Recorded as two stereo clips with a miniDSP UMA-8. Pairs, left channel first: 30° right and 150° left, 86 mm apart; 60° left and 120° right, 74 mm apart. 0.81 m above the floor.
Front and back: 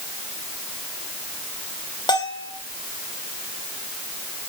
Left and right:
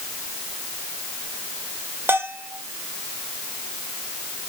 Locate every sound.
2.1 s a bell: 60° right, 1.8 m